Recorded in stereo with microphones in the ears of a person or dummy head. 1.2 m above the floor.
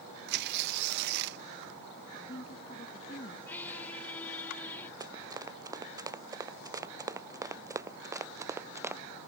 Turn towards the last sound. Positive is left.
turn(degrees=-10)  # may be behind; listen again after turning